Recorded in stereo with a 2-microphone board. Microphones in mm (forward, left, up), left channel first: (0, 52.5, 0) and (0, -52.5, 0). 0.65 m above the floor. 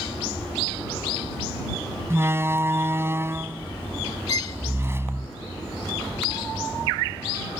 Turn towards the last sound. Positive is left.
turn(degrees=35)  # may be behind; listen again after turning